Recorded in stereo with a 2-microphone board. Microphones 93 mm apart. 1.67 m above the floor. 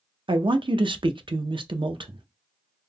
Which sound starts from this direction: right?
A man speaking, at 0.3 s.